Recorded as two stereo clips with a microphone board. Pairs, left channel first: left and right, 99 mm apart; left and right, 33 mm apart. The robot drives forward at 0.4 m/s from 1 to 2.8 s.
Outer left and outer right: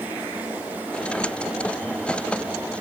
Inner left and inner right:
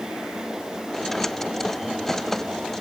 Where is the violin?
No violin in this recording.